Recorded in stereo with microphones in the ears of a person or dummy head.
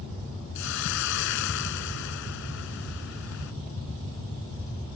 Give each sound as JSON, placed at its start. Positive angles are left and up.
{"t": 0.6, "sound": "a hiss", "side_deg": 70}